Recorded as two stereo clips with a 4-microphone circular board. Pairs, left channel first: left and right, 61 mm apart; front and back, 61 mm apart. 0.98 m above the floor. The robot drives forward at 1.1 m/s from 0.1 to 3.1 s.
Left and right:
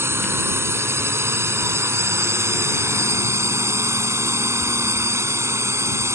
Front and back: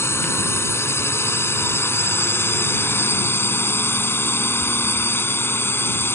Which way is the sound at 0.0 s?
45° right.